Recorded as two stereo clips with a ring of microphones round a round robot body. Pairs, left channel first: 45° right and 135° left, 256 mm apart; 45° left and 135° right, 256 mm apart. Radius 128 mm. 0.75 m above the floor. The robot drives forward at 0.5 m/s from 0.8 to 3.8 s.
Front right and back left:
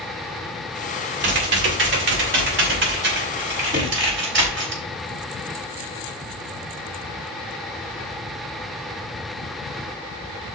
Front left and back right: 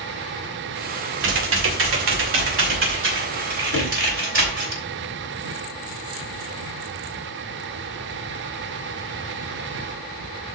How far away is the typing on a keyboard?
About 2 m.